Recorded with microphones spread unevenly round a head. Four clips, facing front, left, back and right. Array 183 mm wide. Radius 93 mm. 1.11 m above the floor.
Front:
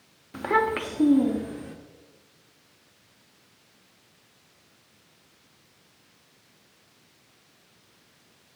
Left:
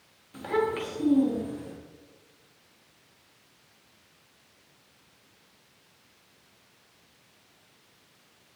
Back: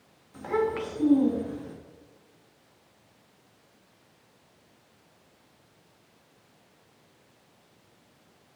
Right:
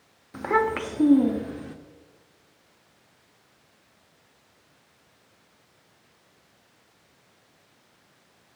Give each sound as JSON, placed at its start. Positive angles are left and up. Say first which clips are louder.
{"t": 0.3, "sound": "a child speaking", "louder": "right 4 dB, front 3 dB", "azimuth_deg": -25, "distance_m": 1.3}